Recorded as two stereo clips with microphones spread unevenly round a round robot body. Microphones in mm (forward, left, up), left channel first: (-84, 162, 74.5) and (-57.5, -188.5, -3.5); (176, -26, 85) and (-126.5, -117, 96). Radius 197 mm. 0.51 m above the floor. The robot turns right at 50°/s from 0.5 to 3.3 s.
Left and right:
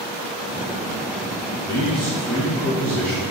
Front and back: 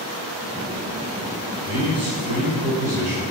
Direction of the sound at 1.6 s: 145° left.